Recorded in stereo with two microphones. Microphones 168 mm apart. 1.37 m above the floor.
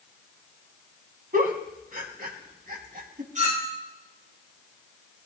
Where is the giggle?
60° right (ahead or behind), 2.5 m.